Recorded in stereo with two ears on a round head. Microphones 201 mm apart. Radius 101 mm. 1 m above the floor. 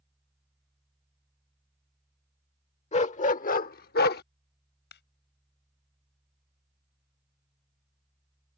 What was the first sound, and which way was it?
A dog barking, 30° left (ahead or behind).